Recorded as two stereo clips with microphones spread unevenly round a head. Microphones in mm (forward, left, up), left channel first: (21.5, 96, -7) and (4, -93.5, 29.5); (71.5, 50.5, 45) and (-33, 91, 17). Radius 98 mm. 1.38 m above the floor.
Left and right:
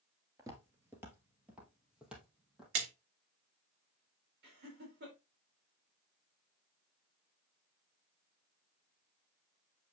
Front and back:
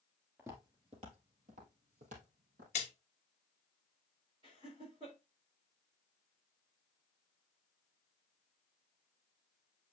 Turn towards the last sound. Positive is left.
turn(degrees=-135)